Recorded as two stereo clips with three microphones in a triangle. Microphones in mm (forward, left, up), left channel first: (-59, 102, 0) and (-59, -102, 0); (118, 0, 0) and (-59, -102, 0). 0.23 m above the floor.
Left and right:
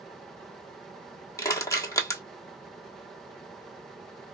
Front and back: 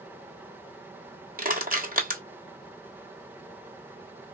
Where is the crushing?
165° left, 1.3 m.